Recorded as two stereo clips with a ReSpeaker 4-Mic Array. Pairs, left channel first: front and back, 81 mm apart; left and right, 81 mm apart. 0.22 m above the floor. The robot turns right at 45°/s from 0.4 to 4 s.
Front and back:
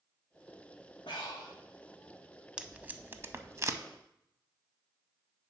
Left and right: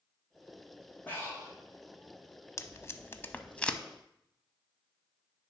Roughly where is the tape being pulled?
Left.